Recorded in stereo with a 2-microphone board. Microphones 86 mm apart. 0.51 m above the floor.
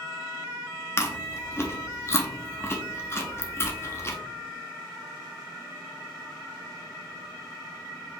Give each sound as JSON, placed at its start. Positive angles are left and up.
{"t": 1.0, "sound": "chewing", "side_deg": 30, "distance_m": 0.6}